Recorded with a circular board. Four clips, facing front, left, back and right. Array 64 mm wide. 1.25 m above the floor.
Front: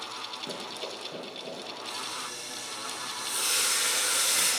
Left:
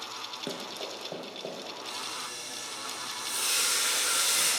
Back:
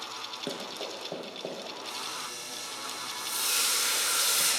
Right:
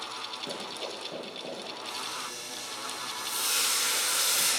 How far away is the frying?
About 2.5 m.